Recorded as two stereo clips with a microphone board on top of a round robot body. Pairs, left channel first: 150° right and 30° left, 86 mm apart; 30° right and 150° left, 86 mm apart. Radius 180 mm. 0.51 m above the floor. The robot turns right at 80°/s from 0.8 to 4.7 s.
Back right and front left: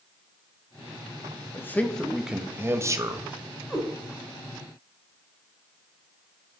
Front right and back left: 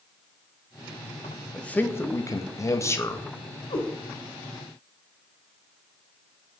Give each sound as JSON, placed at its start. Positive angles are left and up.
{"t": 1.5, "sound": "a man speaking", "azimuth_deg": -105, "distance_m": 0.9}
{"t": 3.7, "sound": "a cat meowing", "azimuth_deg": -60, "distance_m": 1.2}